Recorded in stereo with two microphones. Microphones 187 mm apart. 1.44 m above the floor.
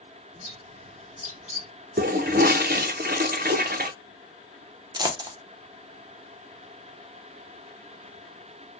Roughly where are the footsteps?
I don't hear footsteps.